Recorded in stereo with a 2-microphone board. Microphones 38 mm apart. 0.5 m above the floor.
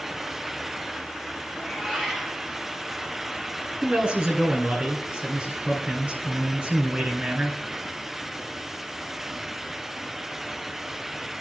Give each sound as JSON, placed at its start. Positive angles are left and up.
{"t": 1.5, "sound": "a cat meowing", "side_deg": -5, "distance_m": 4.5}
{"t": 3.8, "sound": "a man speaking", "side_deg": -35, "distance_m": 4.5}